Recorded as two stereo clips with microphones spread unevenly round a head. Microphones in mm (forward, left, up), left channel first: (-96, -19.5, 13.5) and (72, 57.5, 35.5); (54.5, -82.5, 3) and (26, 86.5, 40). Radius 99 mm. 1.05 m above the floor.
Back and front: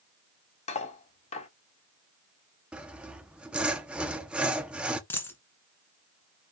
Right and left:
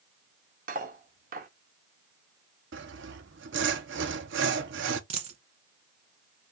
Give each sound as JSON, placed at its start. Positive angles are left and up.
{"t": 0.7, "sound": "cutlery clinking", "azimuth_deg": 145, "distance_m": 1.4}
{"t": 2.7, "sound": "sawing", "azimuth_deg": 105, "distance_m": 0.9}
{"t": 5.1, "sound": "a dropped coin", "azimuth_deg": 125, "distance_m": 1.3}